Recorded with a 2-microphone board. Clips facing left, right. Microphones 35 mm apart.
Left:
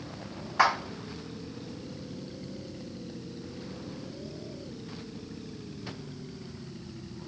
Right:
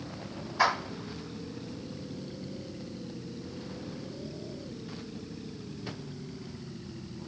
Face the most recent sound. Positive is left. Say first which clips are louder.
# left 2 dB
turn(degrees=60)  # may be behind; listen again after turning